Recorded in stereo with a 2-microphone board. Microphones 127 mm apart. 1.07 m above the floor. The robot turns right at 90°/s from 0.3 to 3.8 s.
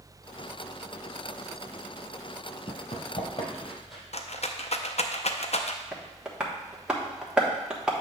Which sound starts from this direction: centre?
Tapping, at 5.9 s.